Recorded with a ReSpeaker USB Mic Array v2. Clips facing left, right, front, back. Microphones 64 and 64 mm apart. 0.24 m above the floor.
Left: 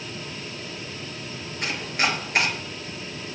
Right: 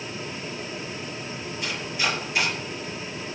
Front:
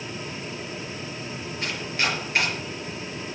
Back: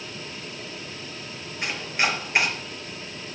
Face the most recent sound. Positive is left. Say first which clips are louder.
# left 3 dB, back 2 dB
turn(degrees=115)